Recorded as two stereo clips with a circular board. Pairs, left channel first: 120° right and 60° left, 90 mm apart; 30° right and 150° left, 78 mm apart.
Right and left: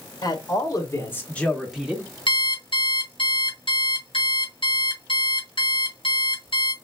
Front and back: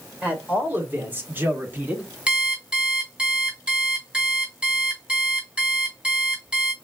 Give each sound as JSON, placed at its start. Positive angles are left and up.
{"t": 0.2, "sound": "a man speaking", "azimuth_deg": -145, "distance_m": 1.9}
{"t": 2.3, "sound": "an alarm clock", "azimuth_deg": -140, "distance_m": 2.5}